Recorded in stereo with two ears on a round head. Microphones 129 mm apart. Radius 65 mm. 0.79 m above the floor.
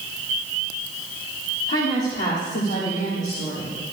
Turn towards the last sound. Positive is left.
turn(degrees=45)  # may be behind; listen again after turning